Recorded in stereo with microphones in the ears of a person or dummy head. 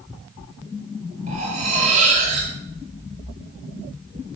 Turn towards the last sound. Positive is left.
turn(degrees=-40)  # may be behind; listen again after turning